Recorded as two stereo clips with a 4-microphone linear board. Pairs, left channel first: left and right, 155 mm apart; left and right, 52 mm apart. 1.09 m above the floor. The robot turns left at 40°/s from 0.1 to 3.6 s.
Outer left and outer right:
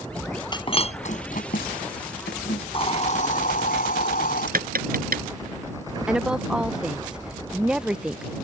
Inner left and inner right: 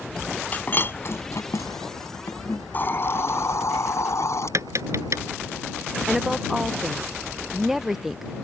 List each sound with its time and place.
0.5 s breaking glass: 30° left (ahead or behind); by 2.6 s 65° left (ahead or behind)
2.7 s a hiss: 145° left; by 4.5 s 110° left
4.5 s tapping: 70° right (ahead or behind)
6.1 s a woman speaking: 5° right (ahead or behind)